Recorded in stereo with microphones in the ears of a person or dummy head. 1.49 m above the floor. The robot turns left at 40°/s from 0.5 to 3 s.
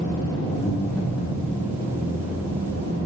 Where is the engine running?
15° left, 3 m; by 3.1 s 85° right, 3 m.